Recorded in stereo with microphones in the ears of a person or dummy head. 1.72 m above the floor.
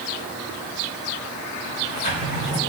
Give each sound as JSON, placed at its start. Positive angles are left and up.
{"t": 1.7, "sound": "a sliding door", "side_deg": 35, "distance_m": 5.0}